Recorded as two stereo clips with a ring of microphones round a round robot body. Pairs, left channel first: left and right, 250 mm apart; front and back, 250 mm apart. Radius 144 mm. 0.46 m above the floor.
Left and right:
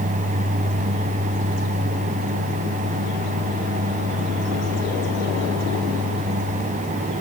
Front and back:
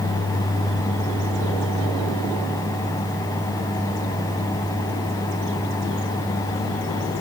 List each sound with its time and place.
Only background noise.